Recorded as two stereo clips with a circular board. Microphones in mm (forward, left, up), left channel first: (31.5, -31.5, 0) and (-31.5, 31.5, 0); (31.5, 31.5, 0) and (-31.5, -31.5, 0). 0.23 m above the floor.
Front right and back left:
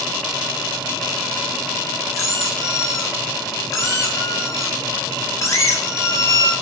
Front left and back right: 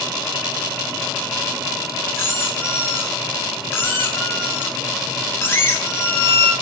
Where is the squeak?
5° right, 0.5 m.